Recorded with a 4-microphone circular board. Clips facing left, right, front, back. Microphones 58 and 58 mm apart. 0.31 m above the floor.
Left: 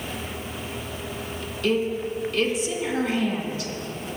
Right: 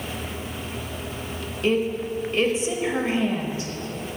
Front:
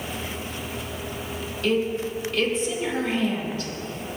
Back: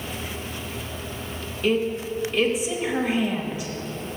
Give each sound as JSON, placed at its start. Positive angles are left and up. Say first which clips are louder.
{"t": 1.6, "sound": "a woman speaking", "louder": "right 1 dB, back 1 dB", "azimuth_deg": -120, "distance_m": 1.0}